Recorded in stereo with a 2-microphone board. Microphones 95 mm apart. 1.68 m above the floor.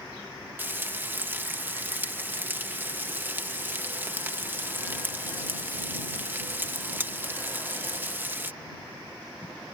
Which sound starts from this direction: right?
Frying, at 0.6 s.